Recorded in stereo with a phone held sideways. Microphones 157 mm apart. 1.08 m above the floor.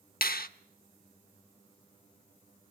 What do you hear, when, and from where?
0.2 s a finger snap: 70° left (ahead or behind), 0.6 m